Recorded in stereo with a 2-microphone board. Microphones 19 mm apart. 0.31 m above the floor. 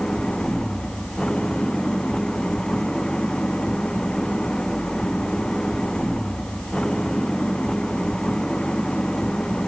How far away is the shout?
No shout in this recording.